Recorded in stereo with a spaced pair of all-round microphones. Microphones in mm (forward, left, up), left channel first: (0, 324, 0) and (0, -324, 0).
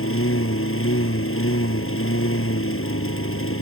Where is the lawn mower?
20° left (ahead or behind).